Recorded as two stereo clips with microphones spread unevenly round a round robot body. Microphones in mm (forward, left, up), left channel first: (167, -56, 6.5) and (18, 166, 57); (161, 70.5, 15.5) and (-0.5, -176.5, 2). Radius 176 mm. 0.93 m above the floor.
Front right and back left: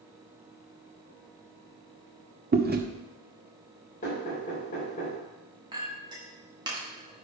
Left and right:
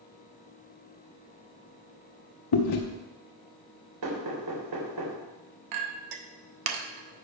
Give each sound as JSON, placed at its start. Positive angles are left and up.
{"t": 2.5, "sound": "chewing", "azimuth_deg": 65, "distance_m": 1.2}
{"t": 4.0, "sound": "knocking", "azimuth_deg": -125, "distance_m": 3.0}
{"t": 5.7, "sound": "a clink", "azimuth_deg": -155, "distance_m": 0.7}